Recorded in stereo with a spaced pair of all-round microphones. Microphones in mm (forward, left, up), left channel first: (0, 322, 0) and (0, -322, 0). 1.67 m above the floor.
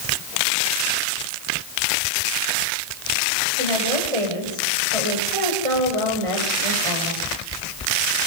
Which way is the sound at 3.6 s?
55° right (ahead or behind).